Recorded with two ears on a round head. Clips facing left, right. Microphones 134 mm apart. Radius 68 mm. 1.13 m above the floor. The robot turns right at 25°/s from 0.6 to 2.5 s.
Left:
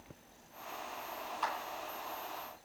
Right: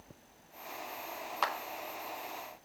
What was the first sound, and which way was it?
A clap, 85° right.